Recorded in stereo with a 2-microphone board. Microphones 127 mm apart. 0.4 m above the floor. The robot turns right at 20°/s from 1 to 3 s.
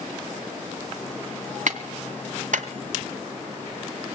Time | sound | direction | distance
1.7 | a clap | 70° right (ahead or behind) | 2 m